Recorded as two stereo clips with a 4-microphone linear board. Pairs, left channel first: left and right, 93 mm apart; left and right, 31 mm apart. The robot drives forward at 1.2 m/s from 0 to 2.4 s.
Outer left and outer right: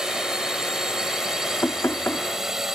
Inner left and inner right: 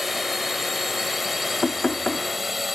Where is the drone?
5° right (ahead or behind).